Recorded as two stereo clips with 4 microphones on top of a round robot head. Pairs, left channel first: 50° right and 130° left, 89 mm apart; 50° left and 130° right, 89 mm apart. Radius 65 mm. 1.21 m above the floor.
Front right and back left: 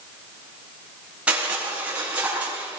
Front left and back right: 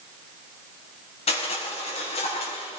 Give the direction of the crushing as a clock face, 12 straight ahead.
10 o'clock.